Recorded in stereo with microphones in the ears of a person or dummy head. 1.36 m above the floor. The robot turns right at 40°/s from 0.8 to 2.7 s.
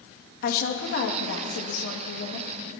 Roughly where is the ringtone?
No ringtone in this recording.